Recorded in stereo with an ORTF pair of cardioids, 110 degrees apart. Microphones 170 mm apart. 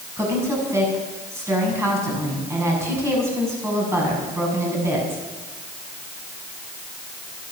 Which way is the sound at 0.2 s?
15° right.